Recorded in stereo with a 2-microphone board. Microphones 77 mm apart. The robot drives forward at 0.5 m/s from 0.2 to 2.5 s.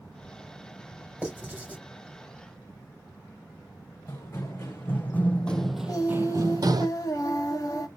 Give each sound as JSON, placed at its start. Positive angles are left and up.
{"t": 1.2, "sound": "writing", "side_deg": -15, "distance_m": 2.0}
{"t": 4.1, "sound": "running footsteps", "side_deg": 35, "distance_m": 1.7}
{"t": 5.9, "sound": "singing", "side_deg": 50, "distance_m": 1.1}